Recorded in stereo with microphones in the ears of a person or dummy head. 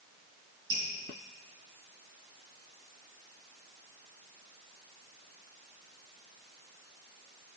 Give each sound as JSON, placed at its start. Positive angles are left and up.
{"t": 0.7, "sound": "dripping", "side_deg": -60, "distance_m": 3.5}